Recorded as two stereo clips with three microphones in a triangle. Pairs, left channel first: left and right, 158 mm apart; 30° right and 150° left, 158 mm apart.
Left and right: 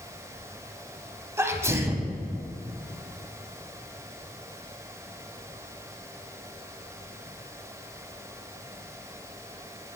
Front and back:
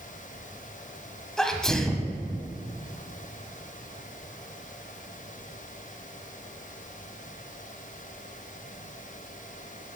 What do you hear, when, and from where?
1.4 s a sneeze: 110° right, 1.0 m